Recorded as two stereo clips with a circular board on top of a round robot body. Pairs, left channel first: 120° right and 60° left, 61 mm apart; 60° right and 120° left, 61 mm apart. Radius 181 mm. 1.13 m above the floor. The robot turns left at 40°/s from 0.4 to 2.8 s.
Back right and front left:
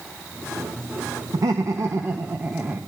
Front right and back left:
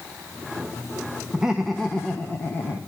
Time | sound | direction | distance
1.3 | laughter | 45° left | 2 m